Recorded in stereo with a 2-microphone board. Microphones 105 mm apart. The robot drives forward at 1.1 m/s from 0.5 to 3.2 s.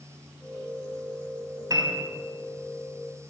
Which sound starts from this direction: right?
A piano, at 1.7 s.